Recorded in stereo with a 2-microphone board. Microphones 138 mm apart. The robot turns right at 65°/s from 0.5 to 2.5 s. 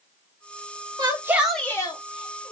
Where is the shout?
35° right, 1.4 m; by 2.5 s 65° left, 1.4 m.